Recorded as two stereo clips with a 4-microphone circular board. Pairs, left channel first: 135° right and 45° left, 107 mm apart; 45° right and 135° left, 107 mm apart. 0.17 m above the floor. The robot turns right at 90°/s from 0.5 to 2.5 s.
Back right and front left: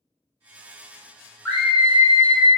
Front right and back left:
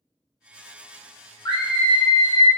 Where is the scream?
65° right, 1.6 m; by 2.5 s 25° left, 1.6 m.